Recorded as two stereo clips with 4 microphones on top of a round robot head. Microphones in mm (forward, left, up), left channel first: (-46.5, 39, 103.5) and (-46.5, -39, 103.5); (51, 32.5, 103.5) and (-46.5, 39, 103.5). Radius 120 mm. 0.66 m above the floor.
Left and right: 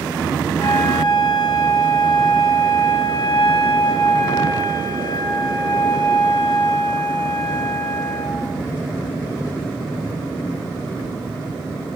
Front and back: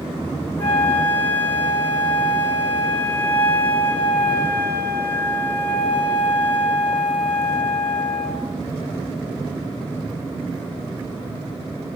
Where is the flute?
65° left, 3.5 m.